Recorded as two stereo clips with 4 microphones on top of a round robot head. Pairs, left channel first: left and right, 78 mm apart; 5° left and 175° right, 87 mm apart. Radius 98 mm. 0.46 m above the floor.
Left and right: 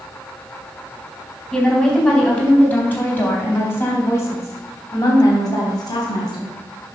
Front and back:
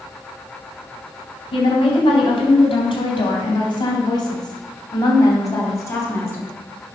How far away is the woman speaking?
About 3.5 m.